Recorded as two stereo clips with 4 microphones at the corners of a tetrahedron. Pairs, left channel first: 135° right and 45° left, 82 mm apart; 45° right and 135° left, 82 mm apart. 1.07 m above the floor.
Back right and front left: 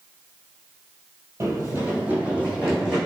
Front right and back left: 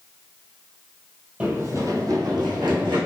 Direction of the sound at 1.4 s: 75° left.